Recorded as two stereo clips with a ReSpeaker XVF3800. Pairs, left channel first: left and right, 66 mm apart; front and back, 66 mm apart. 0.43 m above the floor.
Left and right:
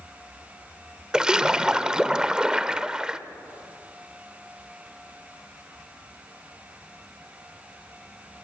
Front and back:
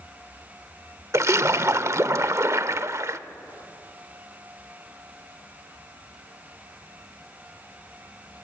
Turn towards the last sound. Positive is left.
turn(degrees=-165)